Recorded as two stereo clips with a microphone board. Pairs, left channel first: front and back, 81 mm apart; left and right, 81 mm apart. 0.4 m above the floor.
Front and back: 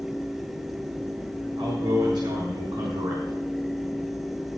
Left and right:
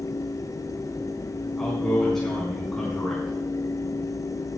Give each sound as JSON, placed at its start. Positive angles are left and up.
{"t": 1.6, "sound": "a man speaking", "azimuth_deg": 175, "distance_m": 5.0}